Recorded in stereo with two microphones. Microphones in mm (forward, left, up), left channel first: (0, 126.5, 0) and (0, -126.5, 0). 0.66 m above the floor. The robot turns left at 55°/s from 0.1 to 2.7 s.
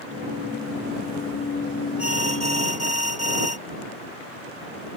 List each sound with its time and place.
2.0 s an alarm: 115° left; by 3.6 s 75° left